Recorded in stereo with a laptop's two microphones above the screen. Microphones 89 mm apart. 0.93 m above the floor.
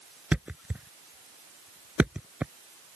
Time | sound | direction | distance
0.3 | a thud | 10° right (ahead or behind) | ?